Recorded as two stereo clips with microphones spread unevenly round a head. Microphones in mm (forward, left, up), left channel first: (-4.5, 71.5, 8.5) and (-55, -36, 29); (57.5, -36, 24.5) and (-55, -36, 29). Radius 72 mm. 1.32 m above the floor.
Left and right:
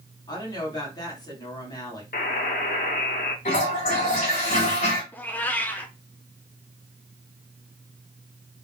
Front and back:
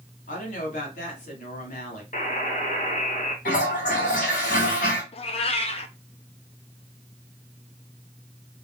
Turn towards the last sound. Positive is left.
turn(degrees=-20)